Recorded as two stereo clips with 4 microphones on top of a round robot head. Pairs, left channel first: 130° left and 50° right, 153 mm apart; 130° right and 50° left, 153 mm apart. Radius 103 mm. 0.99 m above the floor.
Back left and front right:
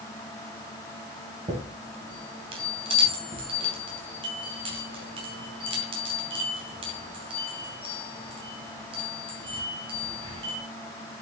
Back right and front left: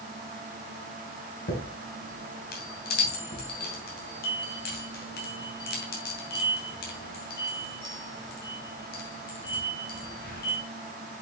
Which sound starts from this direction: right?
A chime, at 1.5 s.